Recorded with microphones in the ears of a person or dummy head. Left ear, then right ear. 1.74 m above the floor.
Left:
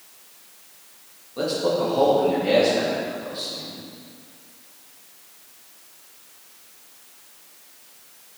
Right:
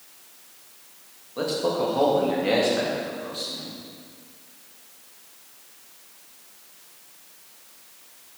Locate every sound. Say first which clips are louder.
1.4 s a man speaking: left 2 dB; 20° right (ahead or behind), 2.5 m; by 3.8 s 45° right (ahead or behind), 3.5 m